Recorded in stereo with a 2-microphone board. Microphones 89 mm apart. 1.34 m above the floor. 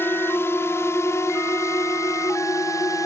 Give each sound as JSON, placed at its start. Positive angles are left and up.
{"t": 0.0, "sound": "a drone", "side_deg": 25}